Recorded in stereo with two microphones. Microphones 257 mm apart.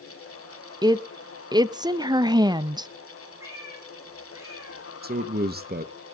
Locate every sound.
0.8 s a woman speaking: 15° right (ahead or behind), 0.7 m
3.4 s a cat meowing: 10° right (ahead or behind), 5 m
5.0 s a man speaking: 35° right (ahead or behind), 1.1 m